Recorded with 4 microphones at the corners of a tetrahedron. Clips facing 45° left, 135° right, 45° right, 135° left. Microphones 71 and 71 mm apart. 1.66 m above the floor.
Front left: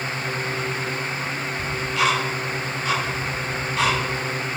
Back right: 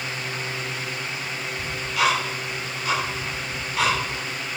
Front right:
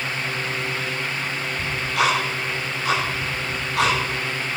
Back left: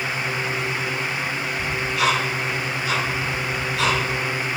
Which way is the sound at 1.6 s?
50° right.